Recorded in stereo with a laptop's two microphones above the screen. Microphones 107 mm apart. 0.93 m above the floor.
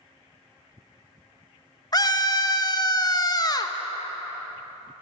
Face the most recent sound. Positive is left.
turn(degrees=35)  # may be behind; listen again after turning